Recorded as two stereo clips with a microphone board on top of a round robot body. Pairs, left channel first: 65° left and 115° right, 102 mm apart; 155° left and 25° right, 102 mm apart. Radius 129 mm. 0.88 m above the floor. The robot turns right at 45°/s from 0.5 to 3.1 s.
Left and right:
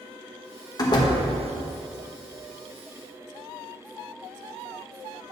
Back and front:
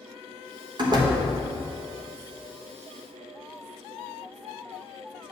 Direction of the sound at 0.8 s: 20° left.